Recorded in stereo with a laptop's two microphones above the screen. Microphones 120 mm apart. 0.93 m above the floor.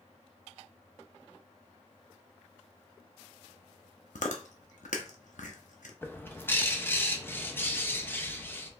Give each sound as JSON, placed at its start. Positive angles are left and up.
{"t": 4.2, "sound": "chewing", "side_deg": 80, "distance_m": 0.8}
{"t": 6.0, "sound": "a bird", "side_deg": 15, "distance_m": 0.8}